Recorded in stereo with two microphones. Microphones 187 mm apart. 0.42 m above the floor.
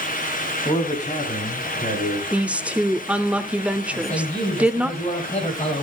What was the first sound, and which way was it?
A man speaking, 40° left (ahead or behind).